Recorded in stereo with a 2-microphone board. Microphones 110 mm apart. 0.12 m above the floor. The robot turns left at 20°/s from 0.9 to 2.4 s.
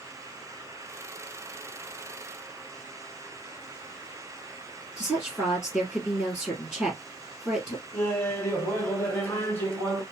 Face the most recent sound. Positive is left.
turn(degrees=20)  # may be behind; listen again after turning